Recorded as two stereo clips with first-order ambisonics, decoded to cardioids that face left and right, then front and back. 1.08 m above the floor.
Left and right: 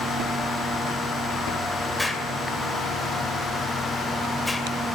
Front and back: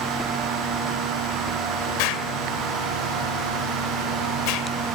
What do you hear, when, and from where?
2.0 s an explosion: straight ahead, 2.5 m